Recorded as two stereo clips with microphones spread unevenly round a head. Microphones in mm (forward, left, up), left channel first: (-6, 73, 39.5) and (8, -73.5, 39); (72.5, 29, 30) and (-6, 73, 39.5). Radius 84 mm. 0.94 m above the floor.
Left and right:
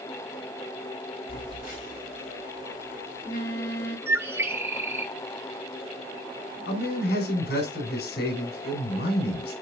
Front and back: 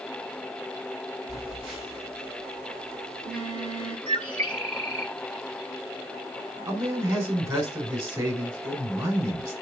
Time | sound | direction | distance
1.3 | a phone buzzing | 130° left | 6 m
4.1 | a bird | 160° right | 0.8 m
6.7 | a man speaking | 105° left | 5 m